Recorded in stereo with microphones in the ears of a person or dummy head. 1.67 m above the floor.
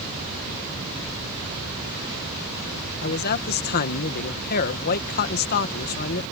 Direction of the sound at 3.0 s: 55° left (ahead or behind).